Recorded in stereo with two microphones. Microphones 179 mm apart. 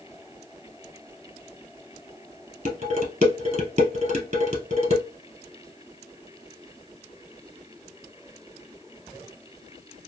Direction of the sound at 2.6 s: 40° right (ahead or behind).